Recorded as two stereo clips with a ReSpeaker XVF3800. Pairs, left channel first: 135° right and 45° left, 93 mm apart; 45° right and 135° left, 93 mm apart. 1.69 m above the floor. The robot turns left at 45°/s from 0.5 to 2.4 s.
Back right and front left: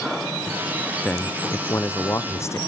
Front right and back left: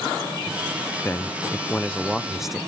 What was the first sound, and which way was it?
A man speaking, 80° right.